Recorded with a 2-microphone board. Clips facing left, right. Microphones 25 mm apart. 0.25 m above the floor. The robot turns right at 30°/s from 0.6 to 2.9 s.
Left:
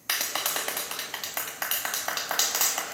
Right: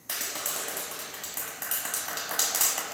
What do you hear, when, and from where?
0.1 s a clap: 95° left, 1.1 m; by 2.9 s 160° left, 1.1 m